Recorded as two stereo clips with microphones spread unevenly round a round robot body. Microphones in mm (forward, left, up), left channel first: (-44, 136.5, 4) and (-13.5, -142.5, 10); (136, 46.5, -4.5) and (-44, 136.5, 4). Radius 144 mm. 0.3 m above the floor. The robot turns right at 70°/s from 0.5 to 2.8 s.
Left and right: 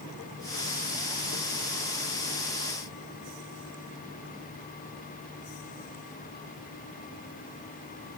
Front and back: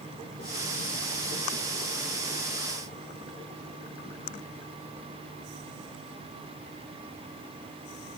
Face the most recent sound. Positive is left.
No sound to turn to.